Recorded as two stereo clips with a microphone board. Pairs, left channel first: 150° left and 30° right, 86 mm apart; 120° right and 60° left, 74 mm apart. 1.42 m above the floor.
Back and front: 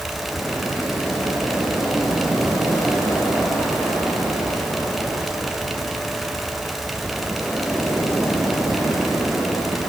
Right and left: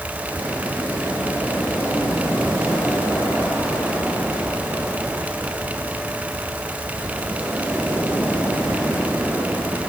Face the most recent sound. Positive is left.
No sound to turn to.